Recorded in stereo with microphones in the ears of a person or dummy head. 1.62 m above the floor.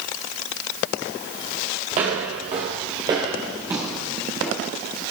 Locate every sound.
1.9 s footsteps: 25° right (ahead or behind), 2.5 m; by 4.7 s 10° left (ahead or behind), 1.6 m